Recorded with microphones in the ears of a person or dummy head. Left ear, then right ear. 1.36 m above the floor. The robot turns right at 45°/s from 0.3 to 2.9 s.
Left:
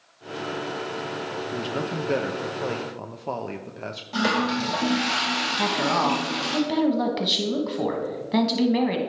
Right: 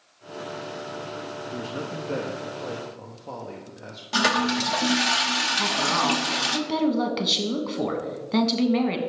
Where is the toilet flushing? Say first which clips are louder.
Right 2 dB; 40° right (ahead or behind), 0.6 m.